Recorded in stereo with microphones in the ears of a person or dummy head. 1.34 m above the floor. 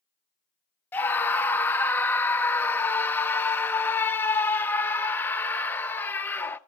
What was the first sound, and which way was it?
A scream, 10° left (ahead or behind).